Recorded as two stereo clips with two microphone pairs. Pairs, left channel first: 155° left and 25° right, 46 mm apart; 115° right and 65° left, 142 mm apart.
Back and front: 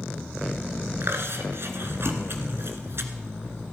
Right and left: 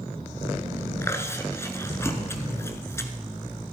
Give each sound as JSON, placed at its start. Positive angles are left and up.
{"t": 1.0, "sound": "chewing", "azimuth_deg": -50, "distance_m": 1.2}